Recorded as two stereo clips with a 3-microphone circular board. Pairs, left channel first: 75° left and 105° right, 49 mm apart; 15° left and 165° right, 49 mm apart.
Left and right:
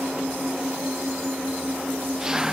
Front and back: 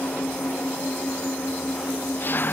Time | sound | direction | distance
0.0 | an engine running | 30° right | ?